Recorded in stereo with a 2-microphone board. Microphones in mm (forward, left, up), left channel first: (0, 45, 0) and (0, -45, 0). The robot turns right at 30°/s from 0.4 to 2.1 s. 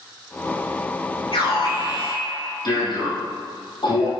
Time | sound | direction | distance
1.3 | an alarm | 80° left | 4.5 m